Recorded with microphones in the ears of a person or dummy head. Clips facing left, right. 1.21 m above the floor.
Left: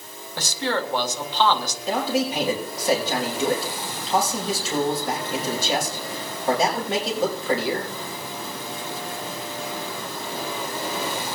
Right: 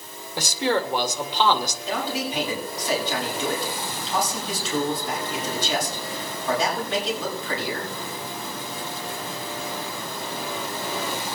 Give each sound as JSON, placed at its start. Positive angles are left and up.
{"t": 0.4, "sound": "a man speaking", "side_deg": -15, "distance_m": 2.0}
{"t": 1.9, "sound": "a man speaking", "side_deg": 45, "distance_m": 5.0}